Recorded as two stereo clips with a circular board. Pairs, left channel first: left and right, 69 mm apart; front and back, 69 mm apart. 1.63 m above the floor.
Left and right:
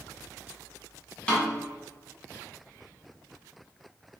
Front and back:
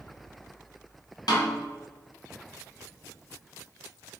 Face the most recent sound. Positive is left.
turn(degrees=15)